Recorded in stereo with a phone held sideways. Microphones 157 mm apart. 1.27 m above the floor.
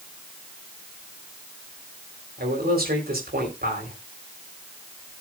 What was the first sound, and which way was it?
A man speaking, 80° right.